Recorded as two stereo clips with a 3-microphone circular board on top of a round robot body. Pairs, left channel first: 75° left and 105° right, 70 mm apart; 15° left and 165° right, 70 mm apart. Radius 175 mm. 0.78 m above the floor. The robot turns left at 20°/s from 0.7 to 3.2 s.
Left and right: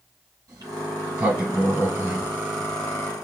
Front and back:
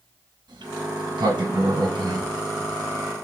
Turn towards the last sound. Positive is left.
turn(degrees=160)